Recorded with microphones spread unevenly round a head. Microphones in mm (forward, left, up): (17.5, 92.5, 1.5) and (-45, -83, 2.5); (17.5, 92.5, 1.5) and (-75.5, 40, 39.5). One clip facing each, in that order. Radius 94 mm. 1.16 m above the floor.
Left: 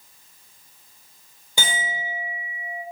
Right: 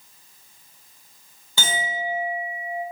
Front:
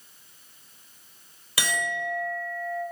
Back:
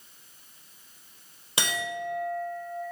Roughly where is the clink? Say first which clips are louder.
Right 2 dB, front 2 dB; behind left.